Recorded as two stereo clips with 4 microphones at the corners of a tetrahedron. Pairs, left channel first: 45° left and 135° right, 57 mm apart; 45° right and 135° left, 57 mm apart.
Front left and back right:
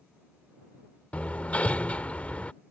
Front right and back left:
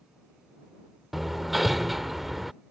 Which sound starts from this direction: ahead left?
Hammering, at 1.1 s.